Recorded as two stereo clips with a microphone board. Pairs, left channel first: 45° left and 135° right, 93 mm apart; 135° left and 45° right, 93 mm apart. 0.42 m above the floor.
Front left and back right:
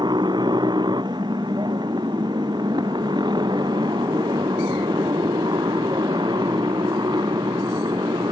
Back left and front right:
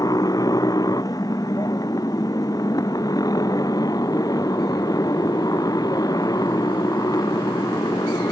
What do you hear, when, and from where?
0.0 s a motorcycle: 175° right